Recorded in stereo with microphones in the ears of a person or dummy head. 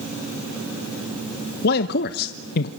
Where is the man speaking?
50° left (ahead or behind), 1.0 m.